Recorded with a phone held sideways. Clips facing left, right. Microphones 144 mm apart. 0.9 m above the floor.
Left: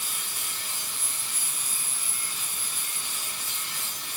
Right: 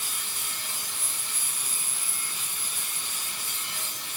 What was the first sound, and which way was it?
Only background noise.